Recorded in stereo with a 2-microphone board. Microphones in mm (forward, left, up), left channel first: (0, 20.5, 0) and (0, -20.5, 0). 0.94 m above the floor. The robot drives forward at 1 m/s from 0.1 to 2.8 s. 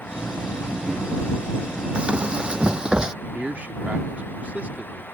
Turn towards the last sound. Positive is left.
turn(degrees=-40)  # may be behind; listen again after turning